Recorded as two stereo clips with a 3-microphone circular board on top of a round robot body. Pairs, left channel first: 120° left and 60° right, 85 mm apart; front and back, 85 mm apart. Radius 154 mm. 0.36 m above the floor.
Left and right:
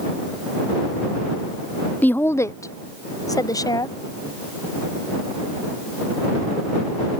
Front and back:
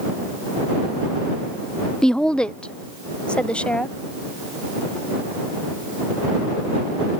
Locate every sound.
2.0 s a woman speaking: 70° left; by 4.0 s 75° left